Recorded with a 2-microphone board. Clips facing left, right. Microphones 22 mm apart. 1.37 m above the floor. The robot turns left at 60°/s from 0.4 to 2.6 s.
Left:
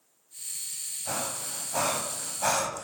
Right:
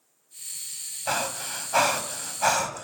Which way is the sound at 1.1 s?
55° right (ahead or behind).